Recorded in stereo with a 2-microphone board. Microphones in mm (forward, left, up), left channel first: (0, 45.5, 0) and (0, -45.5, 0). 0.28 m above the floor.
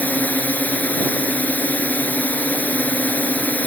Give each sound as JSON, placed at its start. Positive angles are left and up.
{"t": 0.0, "sound": "a drone", "side_deg": 15}